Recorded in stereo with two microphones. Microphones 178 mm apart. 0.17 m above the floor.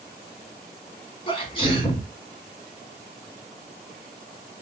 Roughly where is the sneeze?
Left.